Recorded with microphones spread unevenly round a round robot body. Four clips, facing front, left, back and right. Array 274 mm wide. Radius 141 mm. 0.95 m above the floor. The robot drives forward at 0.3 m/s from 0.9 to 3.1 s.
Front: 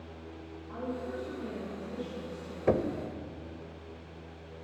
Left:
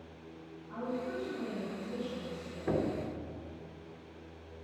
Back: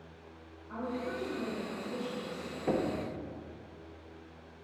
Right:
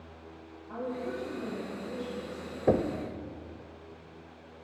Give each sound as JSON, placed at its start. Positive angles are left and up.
{"t": 0.7, "sound": "a woman speaking", "azimuth_deg": -100, "distance_m": 6.0}
{"t": 2.7, "sound": "knocking", "azimuth_deg": -65, "distance_m": 0.8}